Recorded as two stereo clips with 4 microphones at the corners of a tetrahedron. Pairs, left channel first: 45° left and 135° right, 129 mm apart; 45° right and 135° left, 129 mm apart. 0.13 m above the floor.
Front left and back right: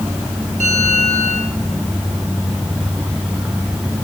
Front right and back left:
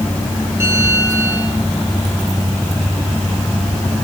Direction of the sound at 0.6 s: 155° right.